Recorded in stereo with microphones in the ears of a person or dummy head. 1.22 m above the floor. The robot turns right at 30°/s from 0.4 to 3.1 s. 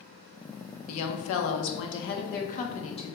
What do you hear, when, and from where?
0.9 s a woman speaking: 90° left, 1.0 m; by 3.1 s 160° left, 1.0 m